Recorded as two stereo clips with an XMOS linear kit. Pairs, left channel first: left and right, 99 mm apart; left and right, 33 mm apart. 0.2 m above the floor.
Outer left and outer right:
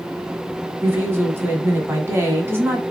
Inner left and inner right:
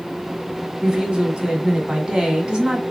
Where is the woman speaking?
25° right (ahead or behind), 1.5 m.